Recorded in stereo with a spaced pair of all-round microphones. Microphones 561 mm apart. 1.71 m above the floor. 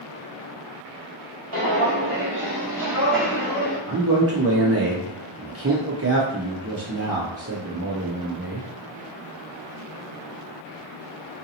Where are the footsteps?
25° right (ahead or behind), 1.9 m; by 3.8 s 10° left (ahead or behind), 2.5 m.